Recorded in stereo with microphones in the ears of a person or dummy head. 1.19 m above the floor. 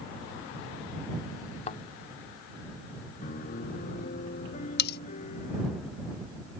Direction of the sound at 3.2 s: 40° left (ahead or behind).